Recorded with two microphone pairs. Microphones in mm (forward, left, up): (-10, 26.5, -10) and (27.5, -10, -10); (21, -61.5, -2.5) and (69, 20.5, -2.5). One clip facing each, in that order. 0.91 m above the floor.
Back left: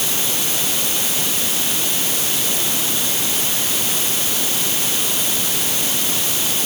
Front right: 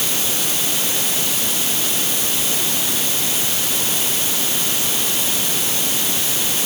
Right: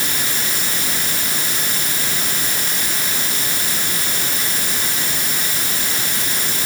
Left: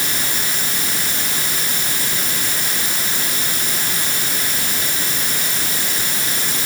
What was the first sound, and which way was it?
Only background noise.